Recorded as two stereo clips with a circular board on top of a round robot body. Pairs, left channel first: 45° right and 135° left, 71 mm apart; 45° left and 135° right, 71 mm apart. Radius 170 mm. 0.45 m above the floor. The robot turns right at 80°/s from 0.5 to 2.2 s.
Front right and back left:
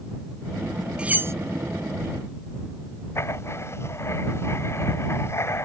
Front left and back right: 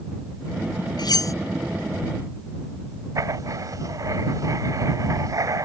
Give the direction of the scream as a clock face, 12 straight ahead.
No scream in this recording.